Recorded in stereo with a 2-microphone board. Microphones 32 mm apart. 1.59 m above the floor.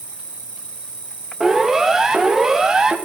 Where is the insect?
45° right (ahead or behind), 0.9 m.